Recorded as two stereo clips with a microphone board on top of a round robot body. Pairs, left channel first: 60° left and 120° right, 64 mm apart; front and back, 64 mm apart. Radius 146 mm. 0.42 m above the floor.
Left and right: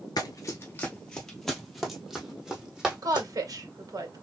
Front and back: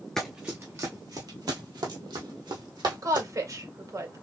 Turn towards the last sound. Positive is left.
turn(degrees=-145)